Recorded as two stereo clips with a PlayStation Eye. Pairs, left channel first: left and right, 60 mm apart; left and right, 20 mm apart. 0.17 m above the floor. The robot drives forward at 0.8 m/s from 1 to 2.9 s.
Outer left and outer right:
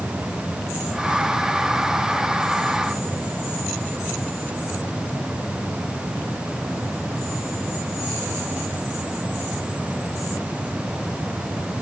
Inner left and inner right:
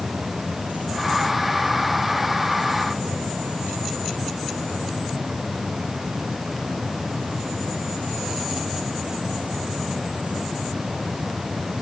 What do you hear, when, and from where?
Only background noise.